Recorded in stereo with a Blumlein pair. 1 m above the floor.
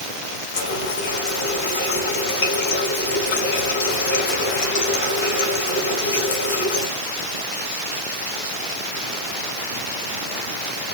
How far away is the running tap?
About 5 m.